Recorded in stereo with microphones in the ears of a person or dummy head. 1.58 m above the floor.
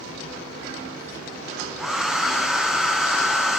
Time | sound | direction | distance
1.8 | a hair dryer | centre (ahead or behind) | 0.7 m